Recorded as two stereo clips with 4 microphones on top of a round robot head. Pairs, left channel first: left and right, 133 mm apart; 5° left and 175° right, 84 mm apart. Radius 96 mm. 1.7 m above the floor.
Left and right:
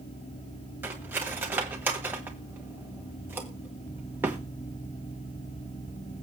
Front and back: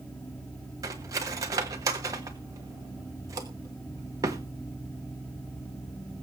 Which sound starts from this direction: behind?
Cutlery clinking, at 0.8 s.